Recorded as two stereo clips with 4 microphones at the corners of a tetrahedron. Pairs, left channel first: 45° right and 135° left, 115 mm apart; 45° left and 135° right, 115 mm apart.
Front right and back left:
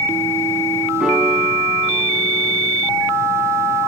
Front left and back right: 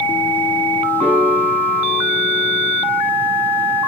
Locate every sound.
1.0 s a piano: 140° right, 7 m